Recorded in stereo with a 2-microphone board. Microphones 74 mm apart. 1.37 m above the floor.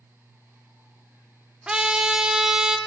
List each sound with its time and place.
1.7 s a trumpet: 15° right (ahead or behind), 0.7 m